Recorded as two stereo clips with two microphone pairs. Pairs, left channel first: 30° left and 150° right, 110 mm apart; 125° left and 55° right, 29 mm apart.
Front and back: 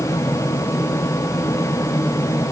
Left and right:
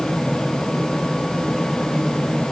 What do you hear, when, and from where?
Only background noise.